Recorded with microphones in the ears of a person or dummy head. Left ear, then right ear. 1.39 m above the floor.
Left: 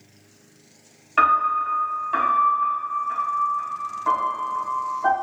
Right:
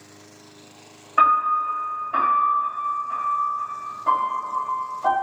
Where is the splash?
I don't hear a splash.